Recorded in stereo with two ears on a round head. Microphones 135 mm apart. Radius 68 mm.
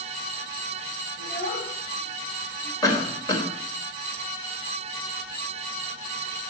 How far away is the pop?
I don't hear a pop.